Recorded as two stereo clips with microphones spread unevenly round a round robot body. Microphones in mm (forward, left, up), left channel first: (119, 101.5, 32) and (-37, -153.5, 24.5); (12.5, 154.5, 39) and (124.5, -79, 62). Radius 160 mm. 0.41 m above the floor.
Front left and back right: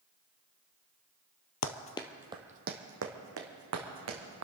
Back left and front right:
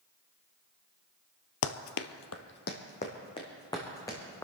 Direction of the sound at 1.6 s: 95° left.